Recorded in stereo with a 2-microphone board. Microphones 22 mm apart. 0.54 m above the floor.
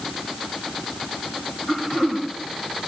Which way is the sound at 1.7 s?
20° right (ahead or behind).